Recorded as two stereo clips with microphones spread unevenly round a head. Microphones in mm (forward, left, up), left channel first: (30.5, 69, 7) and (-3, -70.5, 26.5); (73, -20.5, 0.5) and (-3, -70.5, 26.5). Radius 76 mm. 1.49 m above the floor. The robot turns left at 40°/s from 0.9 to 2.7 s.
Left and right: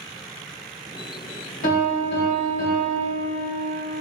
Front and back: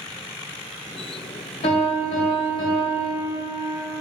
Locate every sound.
1.6 s a piano: 45° left, 1.0 m; by 3.7 s straight ahead, 1.0 m